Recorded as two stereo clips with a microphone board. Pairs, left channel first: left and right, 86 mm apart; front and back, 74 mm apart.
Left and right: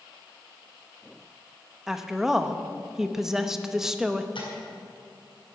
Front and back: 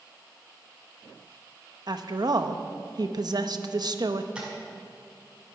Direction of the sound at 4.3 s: 100° left.